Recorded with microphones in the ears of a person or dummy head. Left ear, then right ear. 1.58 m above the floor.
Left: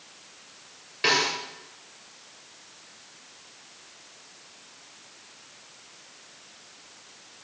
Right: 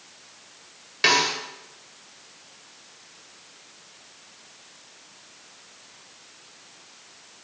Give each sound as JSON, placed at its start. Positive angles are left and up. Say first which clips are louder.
{"t": 1.0, "sound": "a snare drum", "louder": "right 3 dB", "side_deg": -25, "distance_m": 1.6}